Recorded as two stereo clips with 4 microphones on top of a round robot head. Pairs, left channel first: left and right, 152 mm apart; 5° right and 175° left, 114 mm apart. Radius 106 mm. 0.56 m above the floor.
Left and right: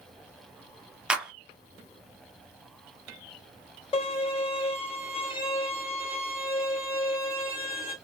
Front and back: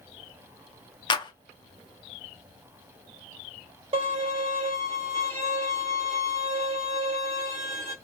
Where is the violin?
140° left, 2.5 m.